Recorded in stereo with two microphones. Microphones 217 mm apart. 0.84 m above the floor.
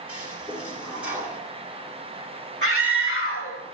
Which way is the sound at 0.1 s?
5° right (ahead or behind).